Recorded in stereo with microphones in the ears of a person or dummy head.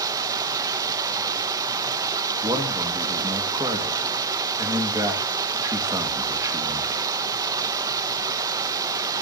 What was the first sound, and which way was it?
Running water, 15° right (ahead or behind).